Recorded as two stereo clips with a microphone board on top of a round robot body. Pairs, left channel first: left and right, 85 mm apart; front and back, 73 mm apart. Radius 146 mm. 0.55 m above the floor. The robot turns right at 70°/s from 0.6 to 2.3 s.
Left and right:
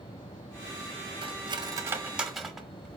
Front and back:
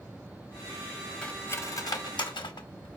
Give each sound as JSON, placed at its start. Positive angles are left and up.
{"t": 1.2, "sound": "cutlery clinking", "azimuth_deg": -80, "distance_m": 0.9}